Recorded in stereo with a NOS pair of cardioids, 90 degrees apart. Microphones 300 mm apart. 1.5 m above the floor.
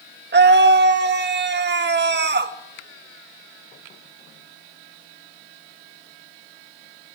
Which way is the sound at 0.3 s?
35° right.